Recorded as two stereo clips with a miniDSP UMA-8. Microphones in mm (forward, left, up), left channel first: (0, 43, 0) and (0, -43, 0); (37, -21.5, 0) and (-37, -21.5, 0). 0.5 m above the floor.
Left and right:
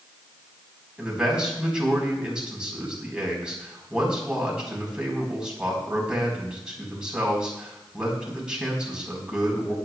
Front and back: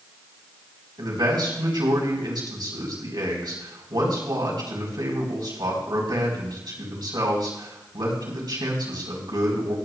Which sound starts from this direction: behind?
A man speaking, at 1.0 s.